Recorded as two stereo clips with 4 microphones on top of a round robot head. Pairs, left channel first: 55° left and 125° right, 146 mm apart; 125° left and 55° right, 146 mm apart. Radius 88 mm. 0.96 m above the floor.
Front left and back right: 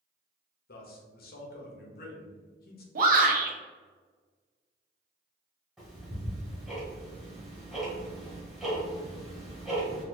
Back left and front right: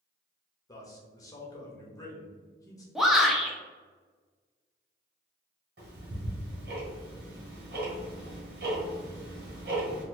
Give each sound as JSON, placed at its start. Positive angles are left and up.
{"t": 0.7, "sound": "a man speaking", "azimuth_deg": 55, "distance_m": 1.0}
{"t": 3.0, "sound": "a shout", "azimuth_deg": -145, "distance_m": 0.9}
{"t": 5.8, "sound": "ticking", "azimuth_deg": -35, "distance_m": 1.5}